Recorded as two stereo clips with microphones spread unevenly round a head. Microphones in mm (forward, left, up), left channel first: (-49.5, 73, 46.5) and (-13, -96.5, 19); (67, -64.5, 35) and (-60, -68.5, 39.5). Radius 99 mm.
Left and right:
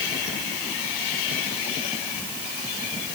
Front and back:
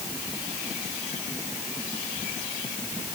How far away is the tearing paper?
I don't hear tearing paper.